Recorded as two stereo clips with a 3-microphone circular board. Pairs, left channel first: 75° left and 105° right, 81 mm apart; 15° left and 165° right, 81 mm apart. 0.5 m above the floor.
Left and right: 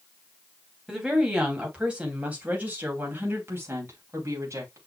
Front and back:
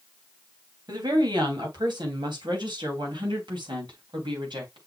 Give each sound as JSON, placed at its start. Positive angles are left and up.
{"t": 0.9, "sound": "a woman speaking", "azimuth_deg": 170, "distance_m": 3.5}